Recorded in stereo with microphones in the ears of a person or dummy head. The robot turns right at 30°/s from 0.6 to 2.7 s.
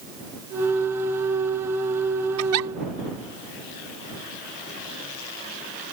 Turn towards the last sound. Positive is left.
turn(degrees=-80)